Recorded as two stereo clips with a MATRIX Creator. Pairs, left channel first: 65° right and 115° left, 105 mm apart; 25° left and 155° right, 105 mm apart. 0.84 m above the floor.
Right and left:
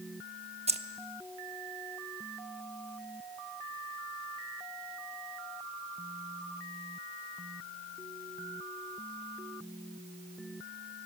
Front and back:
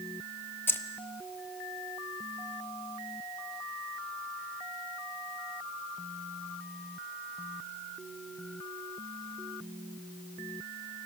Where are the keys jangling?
95° left, 0.9 m.